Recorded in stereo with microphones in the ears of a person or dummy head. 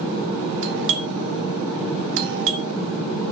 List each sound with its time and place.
0.6 s a doorbell: 65° right (ahead or behind), 1.4 m